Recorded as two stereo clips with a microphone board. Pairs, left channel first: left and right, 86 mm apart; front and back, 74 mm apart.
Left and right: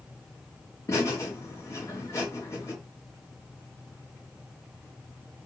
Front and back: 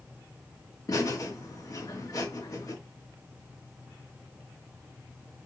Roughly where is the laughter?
Ahead left.